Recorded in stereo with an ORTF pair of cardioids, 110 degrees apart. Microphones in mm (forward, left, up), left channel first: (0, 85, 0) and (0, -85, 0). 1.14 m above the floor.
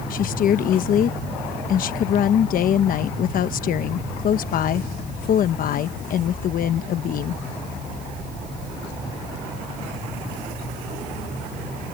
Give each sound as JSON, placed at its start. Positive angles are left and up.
{"t": 0.1, "sound": "a woman speaking", "azimuth_deg": 55}